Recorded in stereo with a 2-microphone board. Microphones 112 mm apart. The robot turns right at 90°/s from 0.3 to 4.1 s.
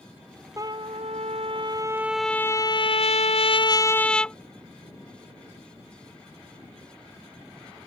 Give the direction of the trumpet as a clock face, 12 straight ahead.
5 o'clock.